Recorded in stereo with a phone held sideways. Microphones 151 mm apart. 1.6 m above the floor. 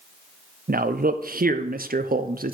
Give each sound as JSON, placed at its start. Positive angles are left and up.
{"t": 0.7, "sound": "a man speaking", "side_deg": -75, "distance_m": 0.6}